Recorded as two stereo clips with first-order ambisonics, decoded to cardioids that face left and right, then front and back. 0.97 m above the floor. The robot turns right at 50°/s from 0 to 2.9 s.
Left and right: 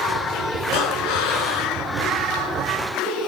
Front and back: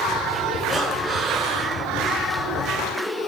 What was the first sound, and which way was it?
Breathing, 85° left.